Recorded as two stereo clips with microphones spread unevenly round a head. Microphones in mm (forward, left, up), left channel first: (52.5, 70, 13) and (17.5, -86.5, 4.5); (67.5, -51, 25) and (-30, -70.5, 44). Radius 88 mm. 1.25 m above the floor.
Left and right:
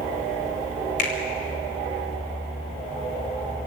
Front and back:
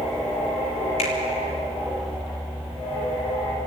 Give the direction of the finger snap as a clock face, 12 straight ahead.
11 o'clock.